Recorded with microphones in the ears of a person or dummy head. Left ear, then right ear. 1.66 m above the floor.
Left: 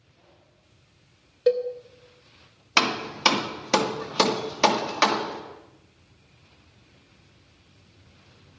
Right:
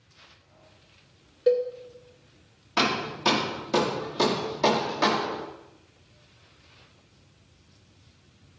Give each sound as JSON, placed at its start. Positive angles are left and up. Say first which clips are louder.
{"t": 1.5, "sound": "a cowbell", "louder": "even", "side_deg": 20, "distance_m": 0.6}
{"t": 2.8, "sound": "hammering", "louder": "left 3 dB", "side_deg": 60, "distance_m": 1.4}